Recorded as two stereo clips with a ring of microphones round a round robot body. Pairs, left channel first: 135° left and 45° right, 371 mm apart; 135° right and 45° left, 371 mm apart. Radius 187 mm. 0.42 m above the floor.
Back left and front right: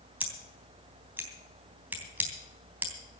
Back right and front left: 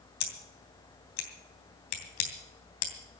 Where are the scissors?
130° right, 3 m.